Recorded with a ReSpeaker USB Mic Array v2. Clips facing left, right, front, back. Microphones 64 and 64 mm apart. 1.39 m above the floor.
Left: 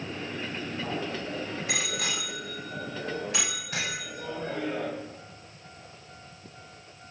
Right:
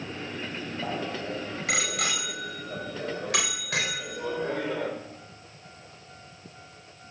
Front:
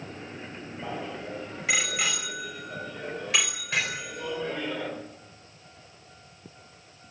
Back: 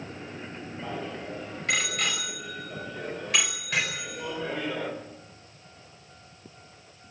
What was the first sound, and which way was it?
A bicycle bell, 80° right.